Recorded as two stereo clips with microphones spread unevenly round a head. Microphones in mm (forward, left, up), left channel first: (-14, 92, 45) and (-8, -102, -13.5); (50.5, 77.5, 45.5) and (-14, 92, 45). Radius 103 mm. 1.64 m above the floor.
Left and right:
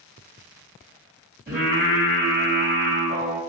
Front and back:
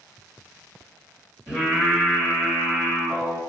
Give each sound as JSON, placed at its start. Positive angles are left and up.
{"t": 1.5, "sound": "singing", "azimuth_deg": 160, "distance_m": 1.4}